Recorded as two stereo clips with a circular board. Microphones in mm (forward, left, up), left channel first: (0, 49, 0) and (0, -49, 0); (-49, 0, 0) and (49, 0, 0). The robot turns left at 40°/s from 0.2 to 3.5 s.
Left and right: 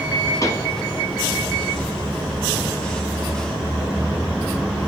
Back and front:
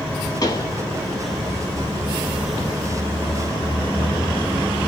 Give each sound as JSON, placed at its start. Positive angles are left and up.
{"t": 0.4, "sound": "a pop", "azimuth_deg": 140, "distance_m": 2.5}